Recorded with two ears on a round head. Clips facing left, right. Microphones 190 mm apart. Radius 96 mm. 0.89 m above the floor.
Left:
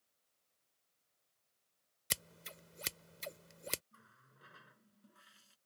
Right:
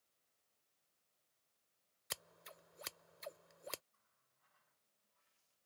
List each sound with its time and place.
2.1 s scissors: 35° left (ahead or behind)
3.9 s a running tap: 90° left